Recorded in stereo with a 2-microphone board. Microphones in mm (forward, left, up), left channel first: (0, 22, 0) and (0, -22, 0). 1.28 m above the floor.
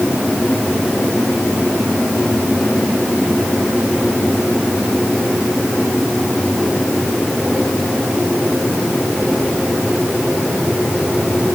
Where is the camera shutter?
No camera shutter in this recording.